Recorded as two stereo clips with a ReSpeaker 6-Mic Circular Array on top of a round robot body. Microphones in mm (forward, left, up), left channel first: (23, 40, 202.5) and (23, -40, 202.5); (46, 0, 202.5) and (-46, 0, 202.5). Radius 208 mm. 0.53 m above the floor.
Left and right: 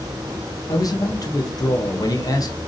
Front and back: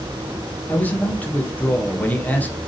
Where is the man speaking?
70° left, 1.3 m.